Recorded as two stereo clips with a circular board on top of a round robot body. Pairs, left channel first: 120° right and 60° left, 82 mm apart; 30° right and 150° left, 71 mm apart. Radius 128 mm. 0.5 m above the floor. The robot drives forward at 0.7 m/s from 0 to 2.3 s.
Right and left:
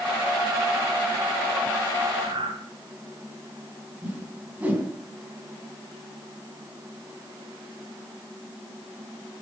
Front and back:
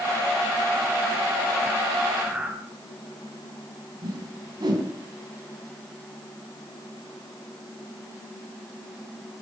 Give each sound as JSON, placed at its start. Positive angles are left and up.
{"t": 2.2, "sound": "breathing", "azimuth_deg": 70, "distance_m": 3.0}
{"t": 4.0, "sound": "a whoosh", "azimuth_deg": 130, "distance_m": 4.5}